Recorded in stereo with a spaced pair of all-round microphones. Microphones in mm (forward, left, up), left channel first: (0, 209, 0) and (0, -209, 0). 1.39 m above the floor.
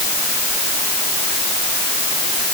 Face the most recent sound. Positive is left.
No sound to turn to.